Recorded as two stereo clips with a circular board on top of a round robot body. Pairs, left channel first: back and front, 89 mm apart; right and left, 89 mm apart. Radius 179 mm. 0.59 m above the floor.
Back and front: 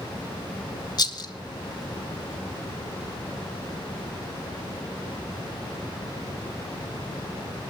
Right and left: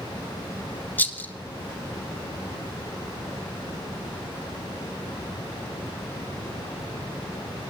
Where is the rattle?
155° right, 1.9 m.